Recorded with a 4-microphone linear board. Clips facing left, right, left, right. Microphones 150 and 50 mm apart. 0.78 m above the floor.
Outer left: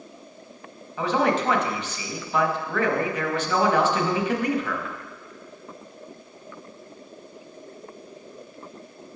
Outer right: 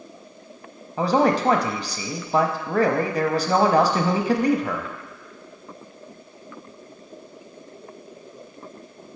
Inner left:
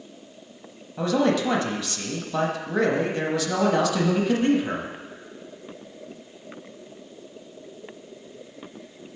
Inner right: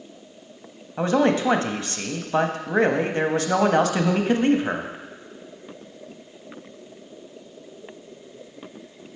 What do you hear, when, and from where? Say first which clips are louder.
1.0 s a man speaking: outer right 3 dB, inner right 2 dB; 35° right (ahead or behind), 0.9 m